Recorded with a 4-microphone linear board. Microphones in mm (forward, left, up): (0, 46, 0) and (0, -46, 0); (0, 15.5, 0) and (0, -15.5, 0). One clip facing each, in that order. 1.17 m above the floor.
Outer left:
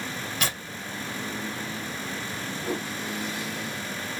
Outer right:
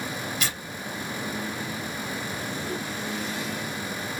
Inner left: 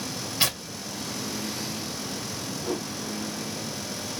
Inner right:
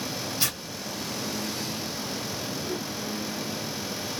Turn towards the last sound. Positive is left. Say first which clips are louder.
# outer left 5 dB, inner left 5 dB
turn(degrees=80)